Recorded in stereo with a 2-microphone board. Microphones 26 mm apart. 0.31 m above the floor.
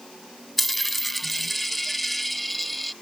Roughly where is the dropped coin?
Centre.